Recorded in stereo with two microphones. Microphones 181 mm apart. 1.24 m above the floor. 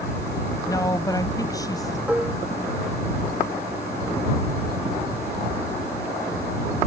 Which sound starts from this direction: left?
A woman speaking, at 0.7 s.